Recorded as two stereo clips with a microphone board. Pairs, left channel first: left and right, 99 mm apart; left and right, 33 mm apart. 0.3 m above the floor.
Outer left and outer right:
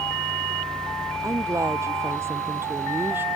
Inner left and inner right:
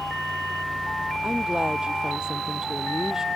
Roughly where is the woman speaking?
Right.